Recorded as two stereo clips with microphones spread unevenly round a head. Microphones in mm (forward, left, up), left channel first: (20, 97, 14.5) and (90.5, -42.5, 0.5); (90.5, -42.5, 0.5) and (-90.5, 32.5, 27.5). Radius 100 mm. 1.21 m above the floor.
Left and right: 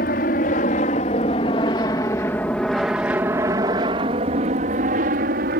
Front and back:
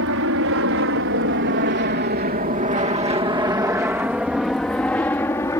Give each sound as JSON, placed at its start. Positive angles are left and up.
{"t": 0.0, "sound": "an aircraft", "azimuth_deg": 155}